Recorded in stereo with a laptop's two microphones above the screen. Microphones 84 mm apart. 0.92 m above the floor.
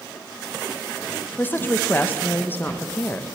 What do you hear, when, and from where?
1.4 s a woman speaking: 25° left (ahead or behind), 0.6 m